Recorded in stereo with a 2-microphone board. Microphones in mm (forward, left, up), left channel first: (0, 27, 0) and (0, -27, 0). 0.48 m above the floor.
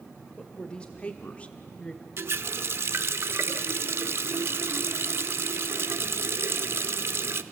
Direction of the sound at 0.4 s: 15° left (ahead or behind).